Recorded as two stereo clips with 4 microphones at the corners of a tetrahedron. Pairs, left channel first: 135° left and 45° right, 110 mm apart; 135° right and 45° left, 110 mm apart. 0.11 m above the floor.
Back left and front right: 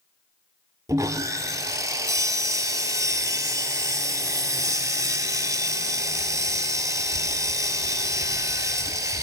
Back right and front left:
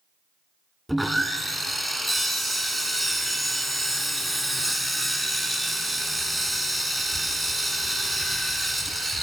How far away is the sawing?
About 0.7 m.